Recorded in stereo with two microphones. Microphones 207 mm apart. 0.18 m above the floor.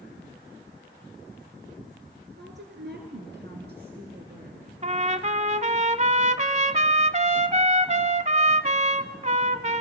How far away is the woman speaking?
About 2.5 m.